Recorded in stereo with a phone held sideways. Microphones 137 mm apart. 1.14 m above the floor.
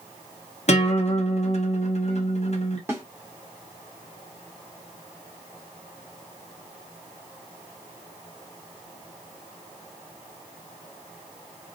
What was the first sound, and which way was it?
A guitar, 50° left (ahead or behind).